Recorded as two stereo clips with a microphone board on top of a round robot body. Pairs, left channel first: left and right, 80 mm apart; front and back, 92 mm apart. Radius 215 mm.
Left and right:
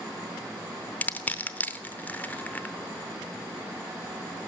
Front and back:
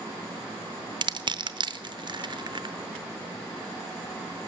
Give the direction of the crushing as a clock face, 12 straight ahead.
7 o'clock.